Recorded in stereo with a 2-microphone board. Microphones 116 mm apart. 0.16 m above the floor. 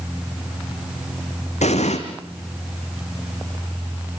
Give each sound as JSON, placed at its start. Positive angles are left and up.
{"t": 1.6, "sound": "an explosion", "side_deg": 85, "distance_m": 3.5}